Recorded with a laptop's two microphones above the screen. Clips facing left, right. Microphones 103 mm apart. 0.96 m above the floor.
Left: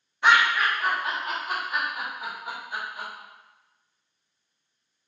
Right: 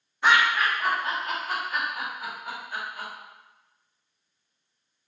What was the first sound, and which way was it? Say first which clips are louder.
Laughter: left 1 dB; centre (ahead or behind).